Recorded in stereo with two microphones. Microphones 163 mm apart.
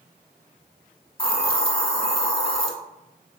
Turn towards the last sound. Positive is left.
turn(degrees=35)  # may be behind; listen again after turning